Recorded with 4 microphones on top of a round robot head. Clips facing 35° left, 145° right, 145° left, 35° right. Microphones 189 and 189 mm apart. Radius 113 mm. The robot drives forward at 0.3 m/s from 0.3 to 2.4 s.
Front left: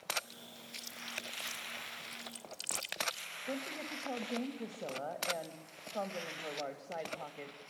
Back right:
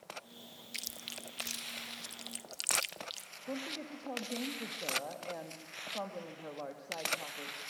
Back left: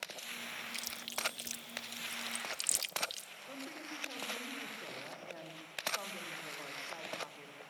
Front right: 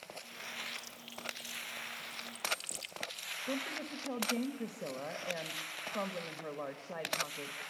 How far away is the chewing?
About 0.6 m.